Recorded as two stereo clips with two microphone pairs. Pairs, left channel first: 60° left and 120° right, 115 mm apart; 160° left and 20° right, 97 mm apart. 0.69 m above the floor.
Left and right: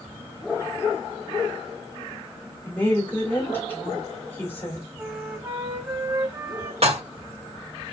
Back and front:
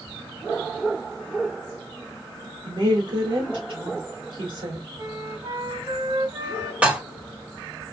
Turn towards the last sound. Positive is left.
turn(degrees=-95)